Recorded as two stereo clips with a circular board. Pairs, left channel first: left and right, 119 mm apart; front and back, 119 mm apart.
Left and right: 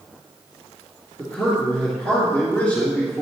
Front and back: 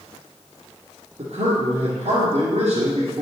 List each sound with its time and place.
1.2 s a man speaking: 165° left, 2.5 m